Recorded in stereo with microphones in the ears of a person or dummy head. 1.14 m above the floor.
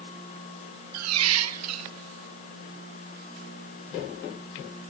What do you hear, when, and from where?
0.9 s a squeak: 90° right, 1.4 m